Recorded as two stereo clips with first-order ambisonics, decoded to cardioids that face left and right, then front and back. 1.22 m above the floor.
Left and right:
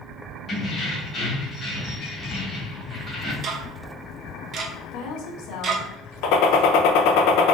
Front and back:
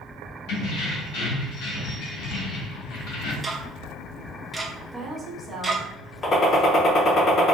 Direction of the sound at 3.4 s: 90° right.